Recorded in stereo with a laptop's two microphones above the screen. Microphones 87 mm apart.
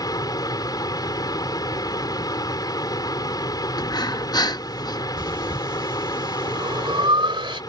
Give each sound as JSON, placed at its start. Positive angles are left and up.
{"t": 0.0, "sound": "a fan", "side_deg": 50}
{"t": 3.8, "sound": "breathing", "side_deg": 50}
{"t": 5.2, "sound": "breathing", "side_deg": -75}